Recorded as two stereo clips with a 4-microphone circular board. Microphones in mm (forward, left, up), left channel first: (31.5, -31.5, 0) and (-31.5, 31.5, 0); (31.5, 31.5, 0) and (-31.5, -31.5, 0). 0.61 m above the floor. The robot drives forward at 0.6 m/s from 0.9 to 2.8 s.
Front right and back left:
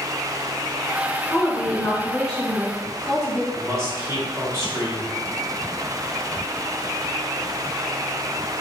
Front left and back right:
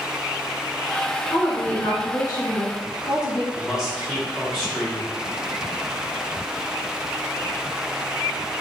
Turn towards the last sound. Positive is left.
turn(degrees=145)